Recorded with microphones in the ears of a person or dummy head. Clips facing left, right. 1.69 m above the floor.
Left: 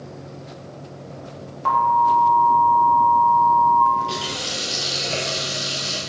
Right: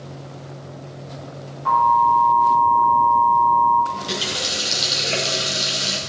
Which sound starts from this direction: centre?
A running tap, at 3.9 s.